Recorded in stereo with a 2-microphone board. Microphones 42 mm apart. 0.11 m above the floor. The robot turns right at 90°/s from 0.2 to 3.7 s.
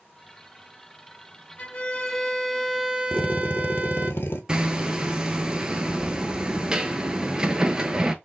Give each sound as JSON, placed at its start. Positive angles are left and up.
{"t": 1.6, "sound": "a violin", "azimuth_deg": 110, "distance_m": 0.8}
{"t": 3.1, "sound": "a drill", "azimuth_deg": 30, "distance_m": 1.3}
{"t": 4.5, "sound": "hammering", "side_deg": -20, "distance_m": 0.6}